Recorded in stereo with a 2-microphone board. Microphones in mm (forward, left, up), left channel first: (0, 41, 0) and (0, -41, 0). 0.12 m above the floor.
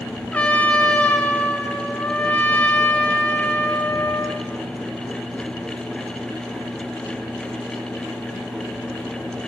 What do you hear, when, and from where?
0.3 s a trumpet: 15° left (ahead or behind), 0.8 m